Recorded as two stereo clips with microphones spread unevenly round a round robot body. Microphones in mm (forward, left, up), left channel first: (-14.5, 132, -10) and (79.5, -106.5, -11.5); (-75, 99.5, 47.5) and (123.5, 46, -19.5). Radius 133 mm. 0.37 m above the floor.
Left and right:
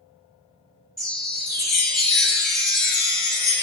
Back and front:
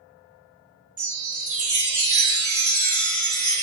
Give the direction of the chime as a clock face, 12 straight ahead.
11 o'clock.